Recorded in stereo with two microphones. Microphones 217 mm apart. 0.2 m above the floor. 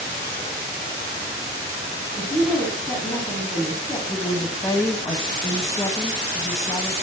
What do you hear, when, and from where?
2.2 s a woman speaking: 15° left (ahead or behind), 1.8 m
4.1 s a woman speaking: 15° left (ahead or behind), 1.1 m